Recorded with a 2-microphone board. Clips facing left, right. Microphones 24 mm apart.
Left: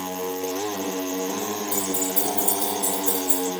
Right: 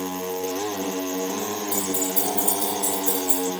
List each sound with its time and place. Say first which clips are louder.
1.7 s keys jangling: even; 55° right (ahead or behind), 5.5 m; by 3.4 s 65° right (ahead or behind), 5.5 m